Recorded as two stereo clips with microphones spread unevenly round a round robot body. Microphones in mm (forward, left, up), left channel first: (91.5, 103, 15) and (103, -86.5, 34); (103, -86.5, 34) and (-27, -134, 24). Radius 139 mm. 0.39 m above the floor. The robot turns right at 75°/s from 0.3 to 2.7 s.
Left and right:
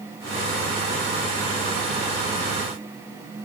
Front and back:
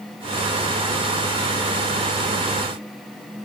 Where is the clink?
I don't hear a clink.